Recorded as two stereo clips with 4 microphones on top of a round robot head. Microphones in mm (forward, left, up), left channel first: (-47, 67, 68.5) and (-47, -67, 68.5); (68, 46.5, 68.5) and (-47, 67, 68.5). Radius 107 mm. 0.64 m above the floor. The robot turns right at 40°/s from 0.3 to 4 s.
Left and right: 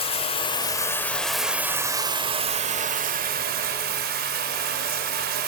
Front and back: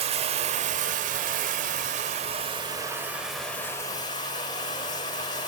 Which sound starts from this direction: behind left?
Running water, at 0.0 s.